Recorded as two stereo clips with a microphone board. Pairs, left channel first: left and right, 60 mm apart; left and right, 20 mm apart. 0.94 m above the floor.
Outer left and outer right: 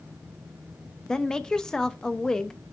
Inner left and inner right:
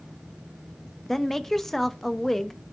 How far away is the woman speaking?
About 0.7 m.